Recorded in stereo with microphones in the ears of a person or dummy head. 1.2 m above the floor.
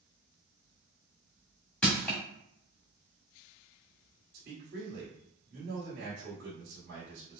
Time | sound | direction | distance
1.8 | crushing | 5° left (ahead or behind) | 1.3 m
4.3 | a man speaking | 55° right (ahead or behind) | 1.4 m